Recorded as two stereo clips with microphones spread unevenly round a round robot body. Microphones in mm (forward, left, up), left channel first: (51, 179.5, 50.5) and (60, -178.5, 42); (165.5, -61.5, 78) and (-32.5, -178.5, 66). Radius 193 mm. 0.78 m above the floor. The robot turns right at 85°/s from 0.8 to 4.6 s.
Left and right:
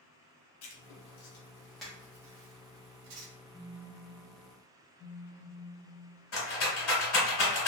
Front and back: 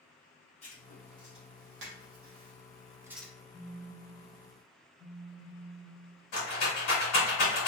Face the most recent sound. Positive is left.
turn(degrees=40)